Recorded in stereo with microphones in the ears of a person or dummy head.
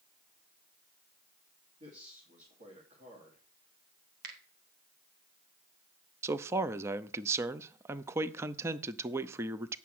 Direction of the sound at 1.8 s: 30° right (ahead or behind).